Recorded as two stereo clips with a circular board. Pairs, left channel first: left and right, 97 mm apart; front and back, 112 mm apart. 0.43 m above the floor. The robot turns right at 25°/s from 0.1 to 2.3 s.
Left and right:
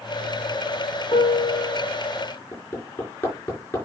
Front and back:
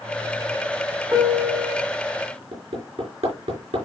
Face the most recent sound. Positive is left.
turn(degrees=160)